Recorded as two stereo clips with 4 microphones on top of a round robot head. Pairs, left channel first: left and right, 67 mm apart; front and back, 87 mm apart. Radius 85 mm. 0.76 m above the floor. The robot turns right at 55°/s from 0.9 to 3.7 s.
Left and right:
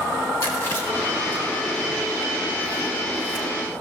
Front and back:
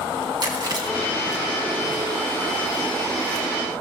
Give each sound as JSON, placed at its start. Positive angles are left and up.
{"t": 0.4, "sound": "chewing", "azimuth_deg": 145, "distance_m": 3.5}